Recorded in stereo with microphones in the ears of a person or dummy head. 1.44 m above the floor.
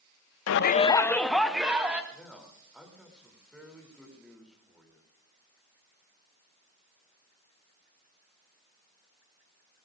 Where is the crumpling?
I don't hear crumpling.